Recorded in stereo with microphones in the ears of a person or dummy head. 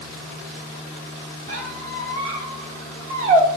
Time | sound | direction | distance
1.5 | a squeak | 35° right (ahead or behind) | 1.2 m